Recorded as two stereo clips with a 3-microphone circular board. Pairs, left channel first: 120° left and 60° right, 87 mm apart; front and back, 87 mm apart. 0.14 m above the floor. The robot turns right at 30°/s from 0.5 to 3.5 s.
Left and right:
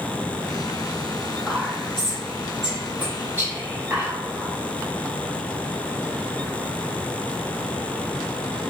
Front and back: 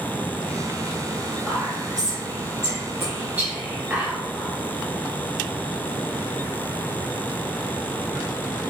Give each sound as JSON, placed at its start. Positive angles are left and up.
{"t": 1.5, "sound": "whispering", "azimuth_deg": -175, "distance_m": 1.6}